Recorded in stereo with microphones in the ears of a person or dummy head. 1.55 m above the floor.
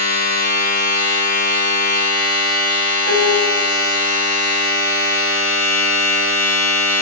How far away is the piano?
About 4.5 m.